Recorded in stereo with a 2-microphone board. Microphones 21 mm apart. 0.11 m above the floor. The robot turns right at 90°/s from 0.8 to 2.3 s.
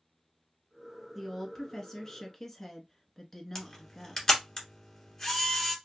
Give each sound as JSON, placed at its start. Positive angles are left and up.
{"t": 1.1, "sound": "a woman speaking", "side_deg": 5, "distance_m": 1.1}
{"t": 3.5, "sound": "a camera shutter", "side_deg": 15, "distance_m": 1.6}